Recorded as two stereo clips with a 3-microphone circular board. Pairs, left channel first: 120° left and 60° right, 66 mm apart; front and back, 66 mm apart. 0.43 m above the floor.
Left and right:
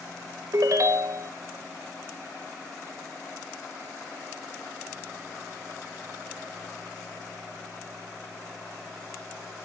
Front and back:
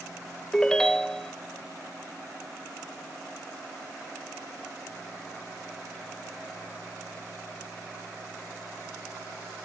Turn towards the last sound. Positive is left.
turn(degrees=-80)